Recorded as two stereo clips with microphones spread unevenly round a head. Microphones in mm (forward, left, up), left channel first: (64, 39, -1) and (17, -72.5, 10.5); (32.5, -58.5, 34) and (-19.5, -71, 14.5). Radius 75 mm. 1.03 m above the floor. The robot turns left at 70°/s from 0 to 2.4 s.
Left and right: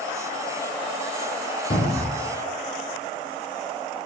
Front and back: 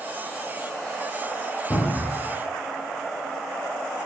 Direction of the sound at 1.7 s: 50° left.